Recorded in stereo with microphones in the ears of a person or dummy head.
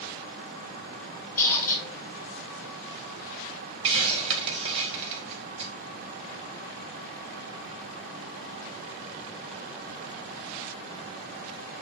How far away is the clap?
No clap in this recording.